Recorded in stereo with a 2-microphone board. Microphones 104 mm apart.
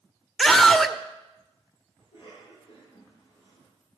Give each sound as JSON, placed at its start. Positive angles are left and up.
{"t": 0.4, "sound": "a scream", "side_deg": 5, "distance_m": 0.8}
{"t": 2.0, "sound": "a cough", "side_deg": 70, "distance_m": 9.5}